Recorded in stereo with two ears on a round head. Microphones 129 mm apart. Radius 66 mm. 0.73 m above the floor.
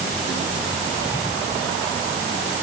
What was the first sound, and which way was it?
Only background noise.